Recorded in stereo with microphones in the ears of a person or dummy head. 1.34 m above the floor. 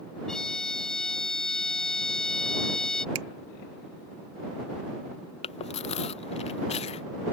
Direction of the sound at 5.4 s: 35° left (ahead or behind).